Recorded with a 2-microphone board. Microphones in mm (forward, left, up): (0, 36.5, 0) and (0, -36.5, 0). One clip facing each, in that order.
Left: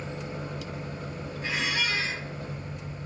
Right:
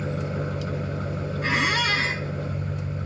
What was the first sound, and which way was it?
An engine running, 75° right (ahead or behind).